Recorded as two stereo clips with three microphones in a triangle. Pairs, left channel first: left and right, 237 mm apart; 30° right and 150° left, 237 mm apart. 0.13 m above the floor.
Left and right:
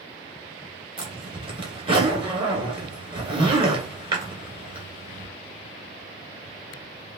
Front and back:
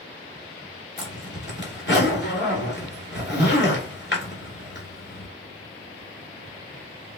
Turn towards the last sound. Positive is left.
turn(degrees=-30)